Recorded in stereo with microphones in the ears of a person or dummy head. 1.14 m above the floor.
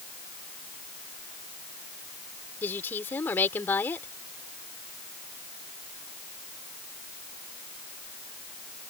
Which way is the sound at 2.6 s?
10° left (ahead or behind).